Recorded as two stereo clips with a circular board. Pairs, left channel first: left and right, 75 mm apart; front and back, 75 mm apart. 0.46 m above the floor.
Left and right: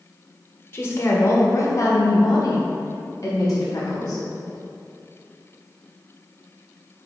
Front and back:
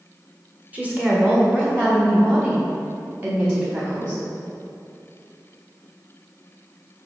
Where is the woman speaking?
125° left, 1.5 m; by 4.2 s 120° left, 3.5 m.